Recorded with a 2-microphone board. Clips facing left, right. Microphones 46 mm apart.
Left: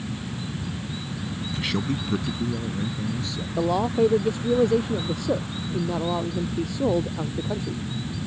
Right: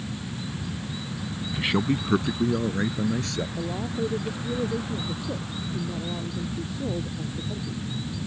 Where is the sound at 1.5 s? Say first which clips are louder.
Right 3 dB; 15° right (ahead or behind); by 3.5 s 65° right (ahead or behind).